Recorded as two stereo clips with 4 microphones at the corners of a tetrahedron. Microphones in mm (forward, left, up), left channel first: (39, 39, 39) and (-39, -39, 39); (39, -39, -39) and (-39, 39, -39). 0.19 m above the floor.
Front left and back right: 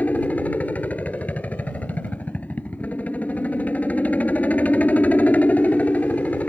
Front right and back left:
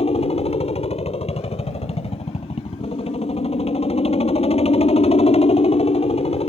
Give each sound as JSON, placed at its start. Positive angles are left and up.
{"t": 0.0, "sound": "a helicopter", "azimuth_deg": -30}